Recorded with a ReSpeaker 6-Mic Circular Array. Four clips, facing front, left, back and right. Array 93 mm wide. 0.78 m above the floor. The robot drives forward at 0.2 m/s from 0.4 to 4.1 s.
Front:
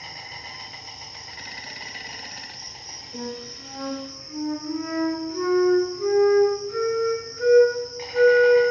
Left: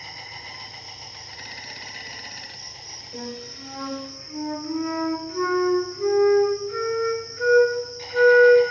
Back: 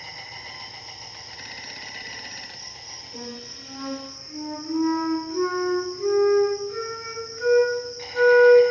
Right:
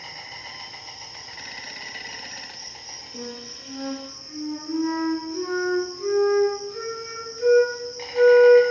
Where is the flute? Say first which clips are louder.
Left 2 dB, front 4 dB; 85° left, 1.0 m; by 8.7 s 95° left, 1.0 m.